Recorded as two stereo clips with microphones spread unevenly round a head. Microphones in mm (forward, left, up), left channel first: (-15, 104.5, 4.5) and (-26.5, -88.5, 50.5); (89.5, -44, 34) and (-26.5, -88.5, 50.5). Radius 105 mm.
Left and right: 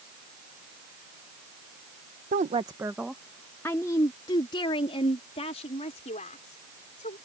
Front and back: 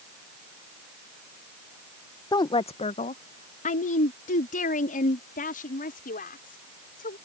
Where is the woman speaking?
35° right; by 7.2 s 25° left.